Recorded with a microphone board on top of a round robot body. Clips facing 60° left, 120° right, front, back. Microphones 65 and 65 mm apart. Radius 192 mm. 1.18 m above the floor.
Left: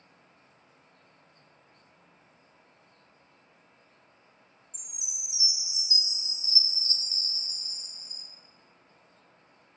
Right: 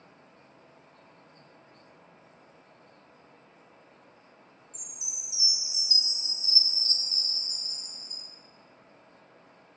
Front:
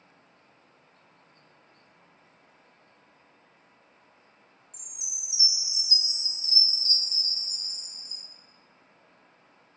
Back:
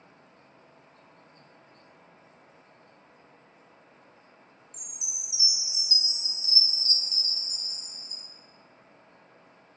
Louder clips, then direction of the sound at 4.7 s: Right 3 dB, back 3 dB; 10° left.